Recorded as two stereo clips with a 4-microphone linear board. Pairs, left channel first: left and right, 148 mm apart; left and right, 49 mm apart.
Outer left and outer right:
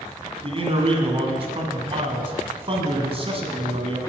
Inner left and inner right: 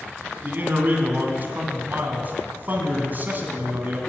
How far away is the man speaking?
About 1.9 m.